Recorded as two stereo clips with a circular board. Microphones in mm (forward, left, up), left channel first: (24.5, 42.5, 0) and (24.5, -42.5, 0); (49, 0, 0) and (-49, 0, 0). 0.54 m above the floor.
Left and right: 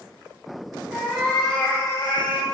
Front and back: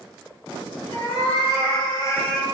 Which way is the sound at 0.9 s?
5° right.